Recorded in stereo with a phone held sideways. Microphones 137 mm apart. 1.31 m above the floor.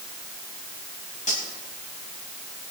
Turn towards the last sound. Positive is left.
turn(degrees=65)  # may be behind; listen again after turning